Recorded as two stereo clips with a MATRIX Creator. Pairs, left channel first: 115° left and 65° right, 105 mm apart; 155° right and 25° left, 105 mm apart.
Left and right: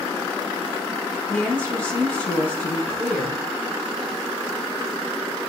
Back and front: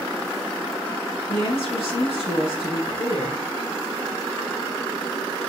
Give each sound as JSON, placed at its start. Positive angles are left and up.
{"t": 1.3, "sound": "a woman speaking", "azimuth_deg": -175, "distance_m": 4.5}